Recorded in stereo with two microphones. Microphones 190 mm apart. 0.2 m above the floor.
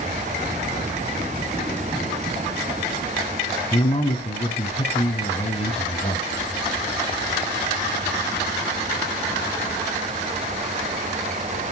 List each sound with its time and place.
3.7 s a man speaking: 30° left (ahead or behind), 1.9 m